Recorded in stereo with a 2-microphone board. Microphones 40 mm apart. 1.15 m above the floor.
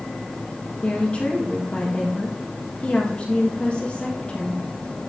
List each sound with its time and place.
0.8 s a woman speaking: 30° left (ahead or behind), 1.6 m